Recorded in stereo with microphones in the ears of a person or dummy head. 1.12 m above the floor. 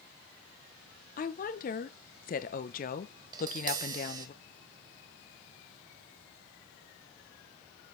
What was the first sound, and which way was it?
A woman speaking, 45° left (ahead or behind).